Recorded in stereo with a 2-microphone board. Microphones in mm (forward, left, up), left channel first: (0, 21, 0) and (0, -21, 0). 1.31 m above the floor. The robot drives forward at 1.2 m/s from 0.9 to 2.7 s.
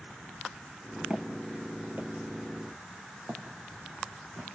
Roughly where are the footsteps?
Right.